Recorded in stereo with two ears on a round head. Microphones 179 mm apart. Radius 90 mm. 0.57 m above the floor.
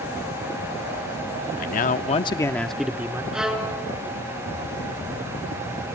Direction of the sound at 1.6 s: 45° left (ahead or behind).